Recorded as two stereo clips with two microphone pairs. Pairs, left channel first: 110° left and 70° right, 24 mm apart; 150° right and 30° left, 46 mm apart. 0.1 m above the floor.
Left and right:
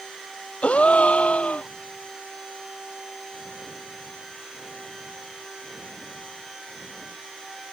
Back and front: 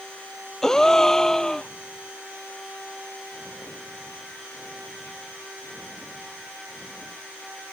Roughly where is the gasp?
Behind left.